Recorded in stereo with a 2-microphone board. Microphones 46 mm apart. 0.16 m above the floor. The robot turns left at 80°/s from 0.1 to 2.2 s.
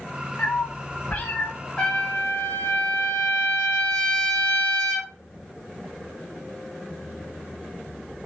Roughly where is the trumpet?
Behind left.